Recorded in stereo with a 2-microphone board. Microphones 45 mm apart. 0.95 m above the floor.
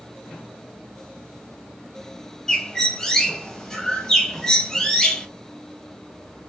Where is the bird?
10° left (ahead or behind), 0.9 m.